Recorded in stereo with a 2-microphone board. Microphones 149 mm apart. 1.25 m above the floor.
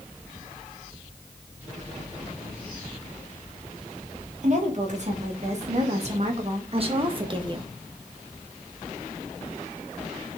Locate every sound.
4.4 s a woman speaking: 55° right (ahead or behind), 3 m; by 7.7 s 30° right (ahead or behind), 1.4 m